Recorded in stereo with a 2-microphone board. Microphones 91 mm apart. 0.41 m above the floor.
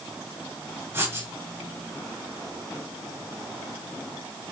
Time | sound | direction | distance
0.9 | writing | 25° right (ahead or behind) | 2.5 m